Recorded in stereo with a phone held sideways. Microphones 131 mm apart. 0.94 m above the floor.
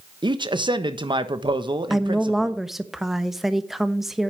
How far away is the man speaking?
About 1.1 m.